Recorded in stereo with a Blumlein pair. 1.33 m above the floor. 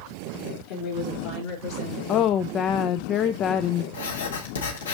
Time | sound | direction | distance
0.7 | a woman speaking | 45° left | 2.5 m
2.1 | a woman speaking | 30° left | 0.5 m
3.9 | writing | 65° left | 1.6 m